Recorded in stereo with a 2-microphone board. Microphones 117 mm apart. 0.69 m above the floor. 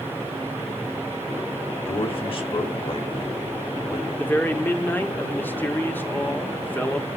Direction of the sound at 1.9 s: 50° left (ahead or behind).